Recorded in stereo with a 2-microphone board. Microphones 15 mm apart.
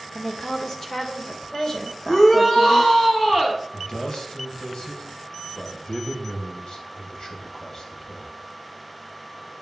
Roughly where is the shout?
Left.